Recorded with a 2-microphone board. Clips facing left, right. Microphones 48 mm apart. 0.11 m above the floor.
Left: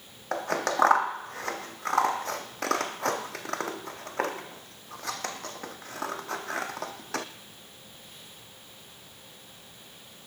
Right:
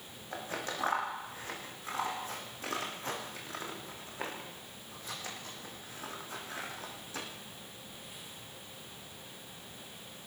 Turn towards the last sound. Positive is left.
turn(degrees=75)  # may be behind; listen again after turning